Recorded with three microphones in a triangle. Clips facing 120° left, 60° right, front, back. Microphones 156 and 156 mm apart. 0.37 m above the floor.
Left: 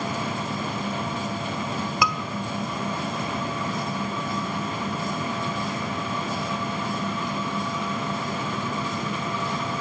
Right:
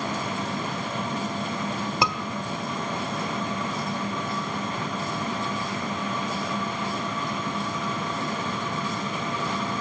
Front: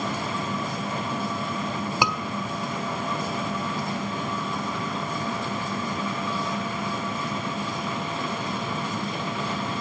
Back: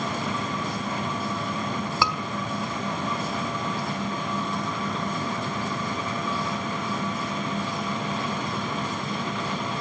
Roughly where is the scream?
Ahead right.